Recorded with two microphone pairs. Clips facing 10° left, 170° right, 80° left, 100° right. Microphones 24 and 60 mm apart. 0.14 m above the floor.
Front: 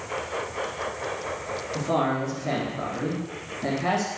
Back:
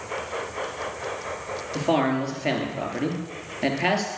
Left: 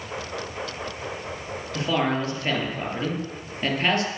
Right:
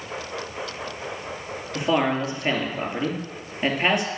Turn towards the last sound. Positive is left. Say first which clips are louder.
# back 3 dB, right 2 dB
turn(degrees=-175)